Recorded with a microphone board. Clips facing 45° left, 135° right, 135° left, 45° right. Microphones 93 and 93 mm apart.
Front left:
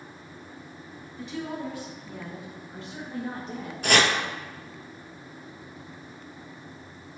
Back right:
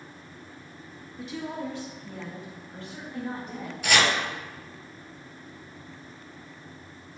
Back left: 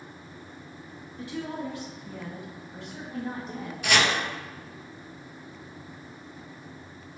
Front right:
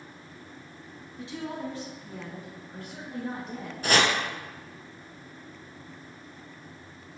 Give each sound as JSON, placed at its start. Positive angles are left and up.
{"t": 1.2, "sound": "a woman speaking", "azimuth_deg": -60, "distance_m": 1.2}
{"t": 3.8, "sound": "chopping", "azimuth_deg": 5, "distance_m": 0.6}